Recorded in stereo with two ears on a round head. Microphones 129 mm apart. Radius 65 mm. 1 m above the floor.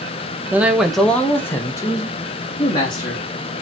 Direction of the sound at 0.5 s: 15° right (ahead or behind).